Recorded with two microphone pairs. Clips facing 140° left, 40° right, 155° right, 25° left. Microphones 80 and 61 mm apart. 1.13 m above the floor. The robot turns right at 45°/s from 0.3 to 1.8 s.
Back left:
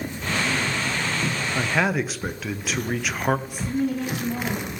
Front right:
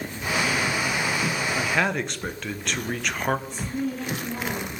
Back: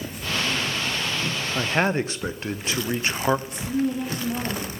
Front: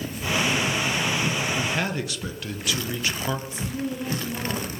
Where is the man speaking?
145° right, 0.6 m; by 3.4 s 135° right, 0.6 m.